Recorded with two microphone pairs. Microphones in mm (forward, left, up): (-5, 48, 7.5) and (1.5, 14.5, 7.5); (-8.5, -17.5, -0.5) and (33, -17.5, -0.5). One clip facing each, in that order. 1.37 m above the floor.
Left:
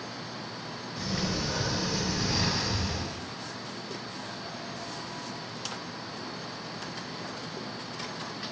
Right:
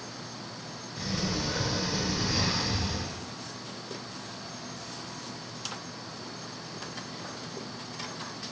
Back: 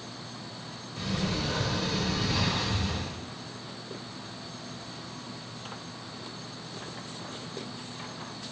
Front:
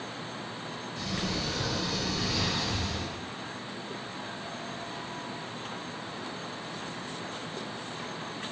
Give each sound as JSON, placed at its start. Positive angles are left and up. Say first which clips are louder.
{"t": 1.0, "sound": "a sliding door", "louder": "even, back 3 dB", "azimuth_deg": -175, "distance_m": 1.3}